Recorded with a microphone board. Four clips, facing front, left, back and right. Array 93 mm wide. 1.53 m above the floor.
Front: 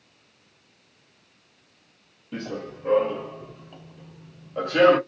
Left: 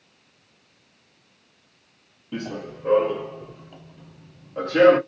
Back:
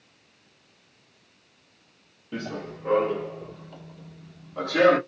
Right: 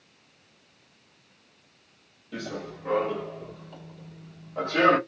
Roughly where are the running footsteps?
Left.